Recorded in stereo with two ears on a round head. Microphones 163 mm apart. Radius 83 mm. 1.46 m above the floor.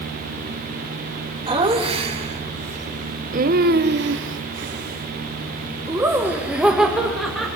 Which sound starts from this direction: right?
Laughter, at 1.5 s.